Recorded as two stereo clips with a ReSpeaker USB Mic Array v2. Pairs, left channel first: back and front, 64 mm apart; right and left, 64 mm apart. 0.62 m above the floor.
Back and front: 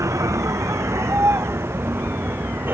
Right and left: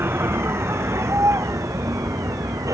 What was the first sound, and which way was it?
A vehicle, 40° left.